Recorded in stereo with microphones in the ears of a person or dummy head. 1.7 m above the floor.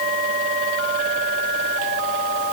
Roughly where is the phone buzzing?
No phone buzzing in this recording.